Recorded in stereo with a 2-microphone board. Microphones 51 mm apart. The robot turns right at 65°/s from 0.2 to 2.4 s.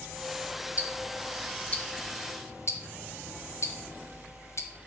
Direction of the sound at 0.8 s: 35° right (ahead or behind).